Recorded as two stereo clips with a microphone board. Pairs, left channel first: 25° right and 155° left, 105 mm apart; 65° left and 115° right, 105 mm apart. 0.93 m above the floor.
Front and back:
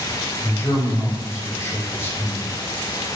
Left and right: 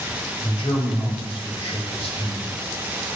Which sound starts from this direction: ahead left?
A man speaking, at 0.4 s.